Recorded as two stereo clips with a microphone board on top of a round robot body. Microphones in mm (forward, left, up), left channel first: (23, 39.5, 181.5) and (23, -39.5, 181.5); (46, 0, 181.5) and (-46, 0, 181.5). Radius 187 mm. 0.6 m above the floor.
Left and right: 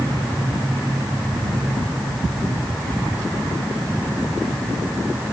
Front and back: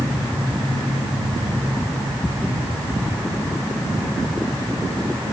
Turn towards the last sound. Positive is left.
No sound to turn to.